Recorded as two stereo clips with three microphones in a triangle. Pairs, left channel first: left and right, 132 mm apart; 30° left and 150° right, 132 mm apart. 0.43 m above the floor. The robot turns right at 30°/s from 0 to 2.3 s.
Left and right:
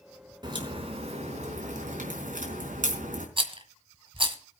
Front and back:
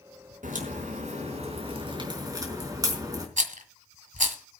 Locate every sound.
0.4 s a crack: 145° right, 4 m; by 3.3 s 90° right, 4 m
3.4 s a rattle: 135° right, 1.7 m